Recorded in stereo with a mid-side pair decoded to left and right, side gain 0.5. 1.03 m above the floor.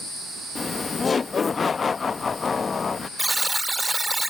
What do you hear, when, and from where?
0.6 s laughter: 30° left
3.2 s a buzzer: 15° right